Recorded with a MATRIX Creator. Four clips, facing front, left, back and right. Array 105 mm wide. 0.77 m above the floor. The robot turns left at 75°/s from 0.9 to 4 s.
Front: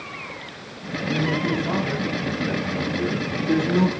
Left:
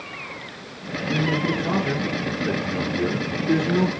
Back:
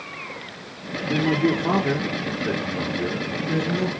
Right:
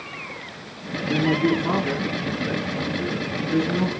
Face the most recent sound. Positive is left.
turn(degrees=10)